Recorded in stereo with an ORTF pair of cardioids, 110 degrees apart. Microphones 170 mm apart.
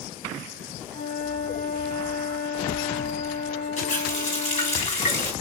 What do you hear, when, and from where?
0.9 s a flute: 70° left, 1.7 m
3.8 s a running tap: 45° left, 3 m